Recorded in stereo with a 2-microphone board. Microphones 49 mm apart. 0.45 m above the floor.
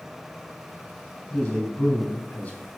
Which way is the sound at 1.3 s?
35° left (ahead or behind).